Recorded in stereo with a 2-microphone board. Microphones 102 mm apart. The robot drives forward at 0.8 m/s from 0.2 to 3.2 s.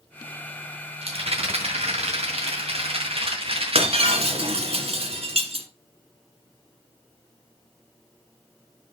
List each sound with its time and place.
1.0 s a rattle: 70° right (ahead or behind), 2.5 m; by 4.7 s 65° right (ahead or behind), 2.5 m
3.8 s breaking glass: 75° right (ahead or behind), 1.6 m